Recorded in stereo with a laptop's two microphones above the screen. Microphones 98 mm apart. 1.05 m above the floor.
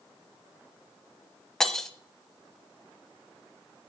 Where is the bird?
No bird in this recording.